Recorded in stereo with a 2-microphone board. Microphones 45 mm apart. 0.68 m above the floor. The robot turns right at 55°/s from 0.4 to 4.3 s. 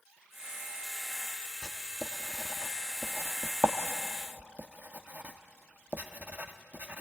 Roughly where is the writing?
Centre.